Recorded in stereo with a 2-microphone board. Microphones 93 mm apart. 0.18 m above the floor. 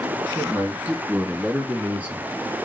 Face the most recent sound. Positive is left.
turn(degrees=-15)  # may be behind; listen again after turning